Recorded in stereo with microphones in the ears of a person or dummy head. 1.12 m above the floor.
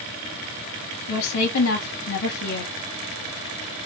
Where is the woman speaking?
70° left (ahead or behind), 0.9 m.